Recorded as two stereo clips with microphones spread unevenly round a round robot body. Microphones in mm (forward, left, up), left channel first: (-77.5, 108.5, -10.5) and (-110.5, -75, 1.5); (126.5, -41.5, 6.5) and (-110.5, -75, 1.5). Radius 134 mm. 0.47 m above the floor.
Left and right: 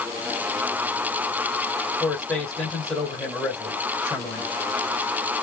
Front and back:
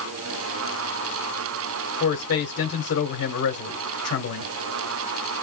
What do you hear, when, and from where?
2.0 s a man speaking: 5° right, 1.6 m